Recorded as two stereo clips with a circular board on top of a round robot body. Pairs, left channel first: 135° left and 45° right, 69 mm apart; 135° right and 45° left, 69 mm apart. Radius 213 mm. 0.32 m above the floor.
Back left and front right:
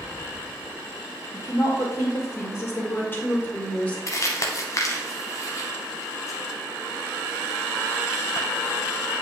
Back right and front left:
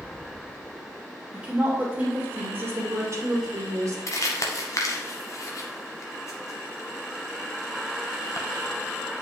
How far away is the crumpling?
About 0.9 m.